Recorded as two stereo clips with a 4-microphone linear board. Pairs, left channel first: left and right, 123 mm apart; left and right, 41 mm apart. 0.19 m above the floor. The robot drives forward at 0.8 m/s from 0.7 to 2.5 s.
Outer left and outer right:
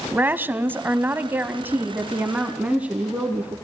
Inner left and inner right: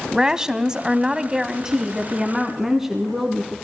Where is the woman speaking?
15° right (ahead or behind), 1.0 m; by 3.5 s 10° right (ahead or behind), 1.5 m.